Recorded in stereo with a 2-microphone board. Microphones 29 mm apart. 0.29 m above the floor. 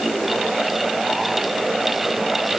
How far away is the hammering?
No hammering in this recording.